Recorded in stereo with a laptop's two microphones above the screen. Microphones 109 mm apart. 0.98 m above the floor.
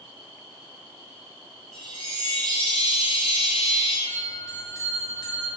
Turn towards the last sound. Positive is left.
turn(degrees=30)  # may be behind; listen again after turning